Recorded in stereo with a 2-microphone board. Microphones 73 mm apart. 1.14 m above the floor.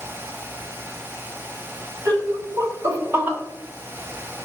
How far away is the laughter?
About 2.0 m.